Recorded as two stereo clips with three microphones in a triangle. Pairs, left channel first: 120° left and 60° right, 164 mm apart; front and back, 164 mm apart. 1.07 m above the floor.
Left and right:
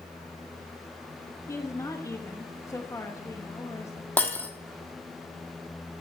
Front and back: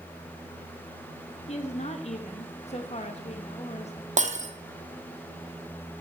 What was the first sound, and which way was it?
A woman speaking, 50° left.